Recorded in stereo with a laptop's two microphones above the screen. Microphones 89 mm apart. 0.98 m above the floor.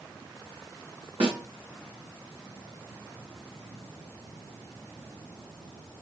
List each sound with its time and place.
1.2 s a snare drum: 75° right (ahead or behind), 1.6 m